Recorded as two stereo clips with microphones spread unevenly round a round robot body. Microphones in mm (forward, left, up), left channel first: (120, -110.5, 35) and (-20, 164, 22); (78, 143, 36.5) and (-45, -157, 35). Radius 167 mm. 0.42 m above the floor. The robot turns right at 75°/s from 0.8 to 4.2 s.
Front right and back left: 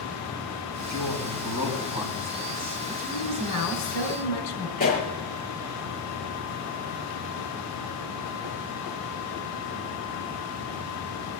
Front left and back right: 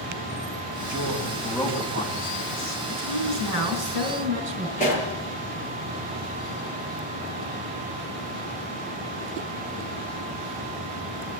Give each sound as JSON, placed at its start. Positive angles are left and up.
{"t": 0.9, "sound": "a man speaking", "azimuth_deg": 100, "distance_m": 3.0}
{"t": 2.9, "sound": "a woman speaking", "azimuth_deg": -155, "distance_m": 3.5}
{"t": 4.8, "sound": "a pop", "azimuth_deg": 0, "distance_m": 6.5}